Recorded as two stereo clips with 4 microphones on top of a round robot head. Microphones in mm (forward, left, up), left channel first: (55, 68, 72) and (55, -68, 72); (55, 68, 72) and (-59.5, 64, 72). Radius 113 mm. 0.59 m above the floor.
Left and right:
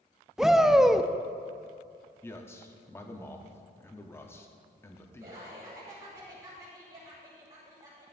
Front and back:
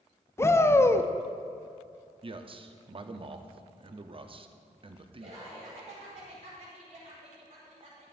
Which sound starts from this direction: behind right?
Laughter, at 5.2 s.